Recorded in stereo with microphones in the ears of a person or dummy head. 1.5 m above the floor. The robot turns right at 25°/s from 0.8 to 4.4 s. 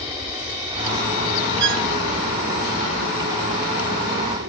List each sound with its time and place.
0.0 s an aircraft: 155° right; by 4.5 s 65° right
1.6 s a violin: 60° right (ahead or behind); by 1.9 s 70° right (ahead or behind)